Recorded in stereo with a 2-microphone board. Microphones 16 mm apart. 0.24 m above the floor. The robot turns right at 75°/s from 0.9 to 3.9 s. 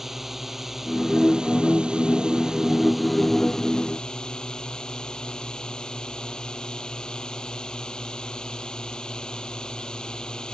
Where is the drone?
165° right; by 10.6 s 60° left.